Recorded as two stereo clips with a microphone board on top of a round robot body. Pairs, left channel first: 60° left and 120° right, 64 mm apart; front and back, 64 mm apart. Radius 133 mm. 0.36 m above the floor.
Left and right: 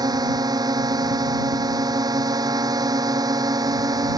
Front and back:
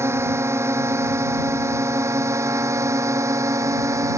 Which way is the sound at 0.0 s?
130° right.